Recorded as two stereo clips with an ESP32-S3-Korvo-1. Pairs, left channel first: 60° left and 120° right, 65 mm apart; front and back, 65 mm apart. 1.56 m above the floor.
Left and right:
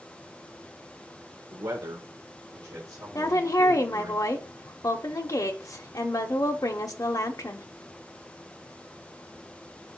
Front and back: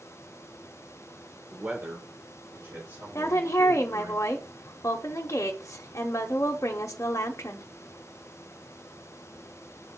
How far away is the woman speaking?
About 0.9 m.